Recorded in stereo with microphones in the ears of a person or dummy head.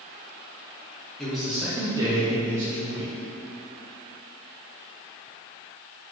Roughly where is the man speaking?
Centre.